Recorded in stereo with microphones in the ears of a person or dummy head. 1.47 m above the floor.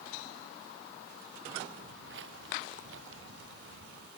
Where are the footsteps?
75° right (ahead or behind); by 4.1 s 80° right.